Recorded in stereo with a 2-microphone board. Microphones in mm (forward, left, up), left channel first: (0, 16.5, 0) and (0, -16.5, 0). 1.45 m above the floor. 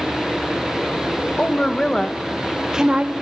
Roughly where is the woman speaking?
Left.